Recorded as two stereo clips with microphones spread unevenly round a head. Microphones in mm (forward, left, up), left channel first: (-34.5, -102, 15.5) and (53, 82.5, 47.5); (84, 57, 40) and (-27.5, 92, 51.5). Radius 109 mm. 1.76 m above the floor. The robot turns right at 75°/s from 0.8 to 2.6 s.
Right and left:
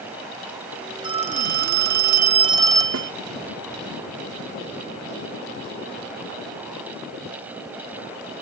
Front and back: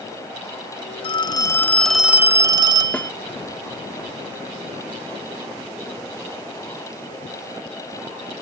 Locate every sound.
1.0 s a phone ringing: 10° left; by 3.1 s 130° left
2.9 s a snare drum: 65° left